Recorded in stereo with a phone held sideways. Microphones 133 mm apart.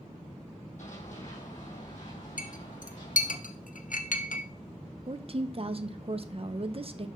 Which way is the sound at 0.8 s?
65° left (ahead or behind).